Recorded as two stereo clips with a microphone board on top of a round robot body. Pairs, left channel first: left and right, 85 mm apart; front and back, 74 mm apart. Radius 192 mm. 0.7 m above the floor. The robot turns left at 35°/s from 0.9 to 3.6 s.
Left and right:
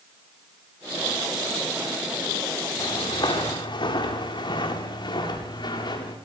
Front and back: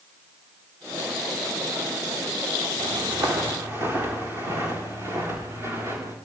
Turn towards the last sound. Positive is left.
turn(degrees=125)